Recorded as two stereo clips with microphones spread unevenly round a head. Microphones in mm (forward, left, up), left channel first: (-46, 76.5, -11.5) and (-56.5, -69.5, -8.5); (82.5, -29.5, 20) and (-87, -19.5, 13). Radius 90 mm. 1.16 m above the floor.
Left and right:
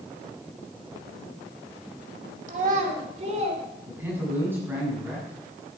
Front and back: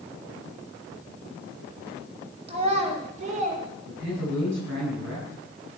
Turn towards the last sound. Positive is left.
turn(degrees=-170)